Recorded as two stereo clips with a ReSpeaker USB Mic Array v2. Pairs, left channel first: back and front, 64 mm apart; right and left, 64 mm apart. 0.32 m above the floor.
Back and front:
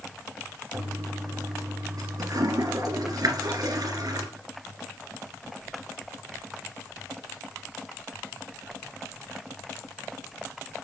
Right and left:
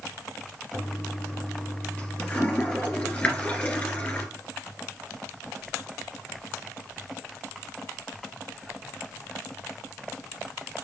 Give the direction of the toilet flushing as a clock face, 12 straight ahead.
1 o'clock.